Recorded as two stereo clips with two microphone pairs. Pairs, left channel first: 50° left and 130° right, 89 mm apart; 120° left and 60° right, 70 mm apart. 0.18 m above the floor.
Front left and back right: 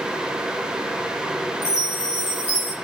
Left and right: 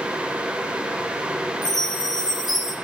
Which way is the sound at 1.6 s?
110° left.